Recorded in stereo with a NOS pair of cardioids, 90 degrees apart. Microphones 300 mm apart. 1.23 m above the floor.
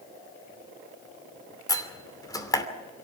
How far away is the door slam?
About 2.5 m.